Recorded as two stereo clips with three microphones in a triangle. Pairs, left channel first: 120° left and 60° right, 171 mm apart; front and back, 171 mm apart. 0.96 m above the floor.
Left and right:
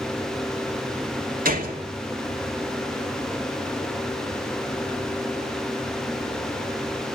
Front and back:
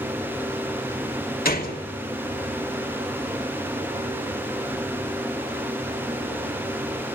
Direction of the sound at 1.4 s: 30° right.